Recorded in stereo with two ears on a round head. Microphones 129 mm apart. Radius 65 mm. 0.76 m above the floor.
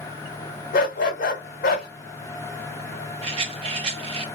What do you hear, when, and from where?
0.7 s a dog barking: 60° left (ahead or behind), 1.4 m
3.2 s a rattle: 40° right (ahead or behind), 0.6 m